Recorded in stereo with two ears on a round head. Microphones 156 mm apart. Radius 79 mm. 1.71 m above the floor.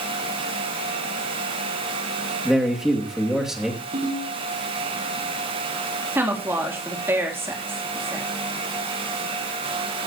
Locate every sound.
2.5 s a man speaking: 5° right (ahead or behind), 2.5 m
3.9 s a ringtone: 50° right (ahead or behind), 9 m
6.2 s a woman speaking: 15° right (ahead or behind), 3.5 m